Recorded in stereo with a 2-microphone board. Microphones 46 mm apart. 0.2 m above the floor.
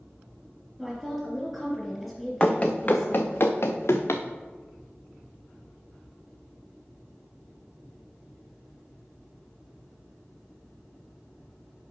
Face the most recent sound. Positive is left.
turn(degrees=75)  # may be behind; listen again after turning